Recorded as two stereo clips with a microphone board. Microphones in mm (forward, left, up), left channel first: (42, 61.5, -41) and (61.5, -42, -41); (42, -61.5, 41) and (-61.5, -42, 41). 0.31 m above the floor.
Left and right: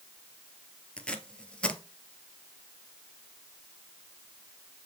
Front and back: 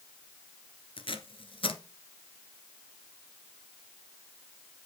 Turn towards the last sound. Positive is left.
turn(degrees=20)